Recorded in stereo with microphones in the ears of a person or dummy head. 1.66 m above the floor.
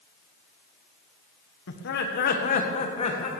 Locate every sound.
1.7 s laughter: 65° left (ahead or behind), 1.5 m; by 3.3 s 30° left (ahead or behind), 2 m